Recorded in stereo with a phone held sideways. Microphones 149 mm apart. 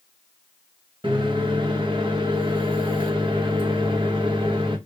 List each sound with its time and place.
1.0 s a microwave: 35° right (ahead or behind), 1.1 m